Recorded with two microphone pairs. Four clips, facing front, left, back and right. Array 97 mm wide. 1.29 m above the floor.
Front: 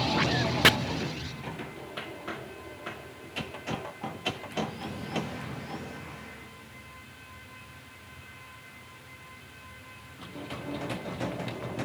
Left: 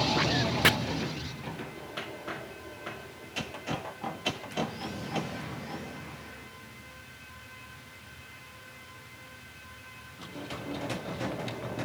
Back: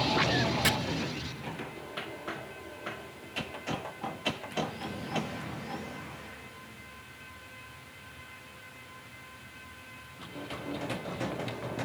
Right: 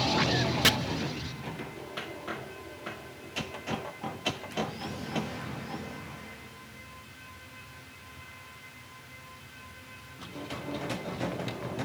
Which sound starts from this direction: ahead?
Chopping, at 0.6 s.